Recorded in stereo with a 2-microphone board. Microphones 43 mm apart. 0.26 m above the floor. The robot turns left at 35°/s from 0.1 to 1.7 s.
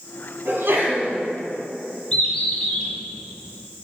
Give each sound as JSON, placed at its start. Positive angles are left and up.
{"t": 0.5, "sound": "a sneeze", "side_deg": -55, "distance_m": 2.5}
{"t": 2.1, "sound": "a bird", "side_deg": 25, "distance_m": 2.0}